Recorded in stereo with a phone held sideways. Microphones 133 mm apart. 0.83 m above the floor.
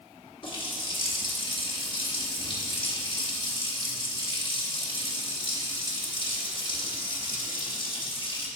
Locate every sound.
0.4 s a running tap: 40° left (ahead or behind), 1.0 m